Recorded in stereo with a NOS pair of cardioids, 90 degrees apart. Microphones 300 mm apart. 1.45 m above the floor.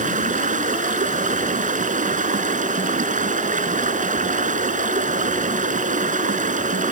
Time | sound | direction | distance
0.0 | running water | 25° right | ?